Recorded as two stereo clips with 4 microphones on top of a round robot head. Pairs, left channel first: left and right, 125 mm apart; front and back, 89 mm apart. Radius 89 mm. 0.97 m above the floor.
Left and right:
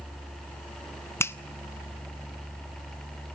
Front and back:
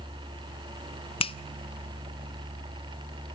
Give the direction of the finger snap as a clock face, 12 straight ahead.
11 o'clock.